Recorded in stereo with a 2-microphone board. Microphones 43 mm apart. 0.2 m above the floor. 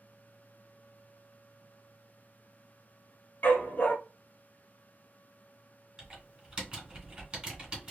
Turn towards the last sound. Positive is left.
turn(degrees=-20)  # may be behind; listen again after turning